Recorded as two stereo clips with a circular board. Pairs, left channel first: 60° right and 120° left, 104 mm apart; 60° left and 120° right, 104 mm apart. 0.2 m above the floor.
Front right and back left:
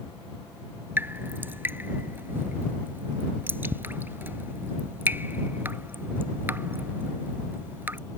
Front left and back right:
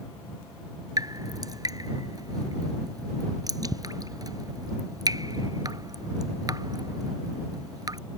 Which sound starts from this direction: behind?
Dripping, at 1.0 s.